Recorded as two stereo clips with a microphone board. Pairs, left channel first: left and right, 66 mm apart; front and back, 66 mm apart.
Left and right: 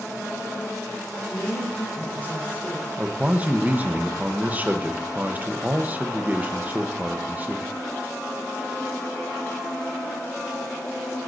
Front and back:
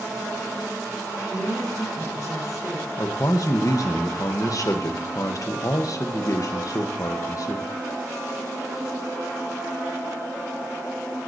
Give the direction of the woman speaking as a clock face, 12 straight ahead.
11 o'clock.